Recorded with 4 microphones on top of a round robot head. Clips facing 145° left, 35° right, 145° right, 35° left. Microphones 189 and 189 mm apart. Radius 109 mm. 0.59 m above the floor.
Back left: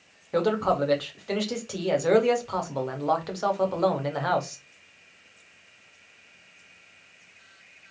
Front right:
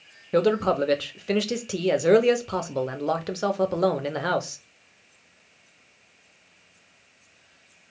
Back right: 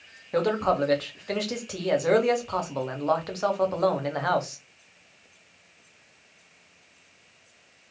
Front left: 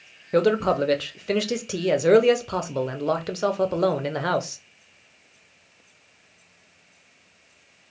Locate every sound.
0.3 s a man speaking: 5° left, 0.8 m